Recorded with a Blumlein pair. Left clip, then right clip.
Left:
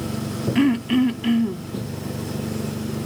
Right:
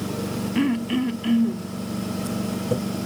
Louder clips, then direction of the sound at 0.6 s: Left 5 dB; 10° left.